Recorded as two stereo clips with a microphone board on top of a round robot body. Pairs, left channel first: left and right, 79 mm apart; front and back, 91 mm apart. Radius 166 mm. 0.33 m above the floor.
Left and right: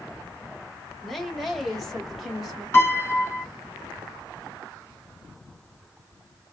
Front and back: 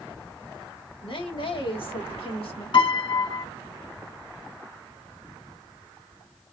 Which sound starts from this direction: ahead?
A woman speaking, at 1.0 s.